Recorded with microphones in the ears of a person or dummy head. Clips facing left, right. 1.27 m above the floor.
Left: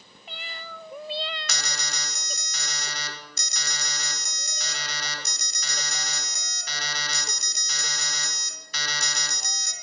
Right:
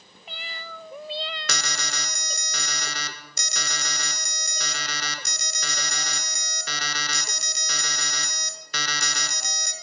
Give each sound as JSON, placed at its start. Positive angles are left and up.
{"t": 1.5, "sound": "an alarm", "side_deg": -50, "distance_m": 1.6}